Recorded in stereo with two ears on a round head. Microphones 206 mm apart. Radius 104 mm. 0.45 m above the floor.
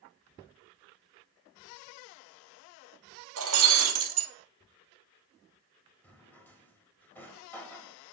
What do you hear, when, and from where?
3.4 s breaking glass: 65° right (ahead or behind), 1.7 m
6.0 s a drawer: 10° left (ahead or behind), 1.4 m